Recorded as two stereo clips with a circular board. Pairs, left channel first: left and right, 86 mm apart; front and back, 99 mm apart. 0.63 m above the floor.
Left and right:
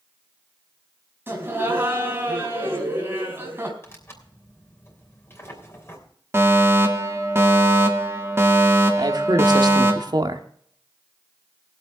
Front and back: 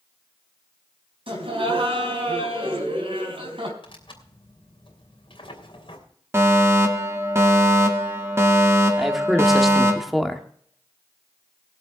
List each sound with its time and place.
1.3 s laughter: 155° right, 4 m
3.8 s tearing paper: 30° left, 3 m
6.3 s a fire alarm: 130° right, 1.8 m
9.0 s a man speaking: 90° right, 1.3 m